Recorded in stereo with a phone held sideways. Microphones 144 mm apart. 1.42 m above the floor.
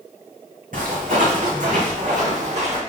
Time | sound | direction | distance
0.7 | footsteps | 70° right (ahead or behind) | 4.5 m